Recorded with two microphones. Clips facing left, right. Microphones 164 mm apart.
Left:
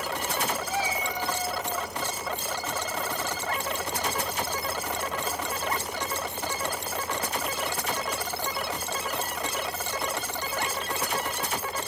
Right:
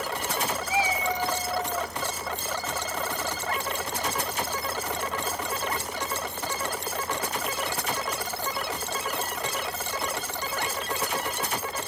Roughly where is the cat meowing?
Centre.